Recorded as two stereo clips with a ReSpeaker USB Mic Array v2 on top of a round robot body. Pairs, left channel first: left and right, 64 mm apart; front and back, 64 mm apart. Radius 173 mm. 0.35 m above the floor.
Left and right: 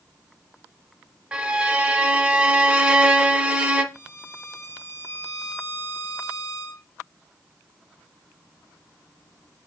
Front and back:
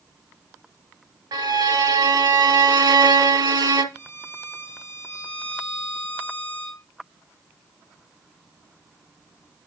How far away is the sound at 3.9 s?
About 2.0 m.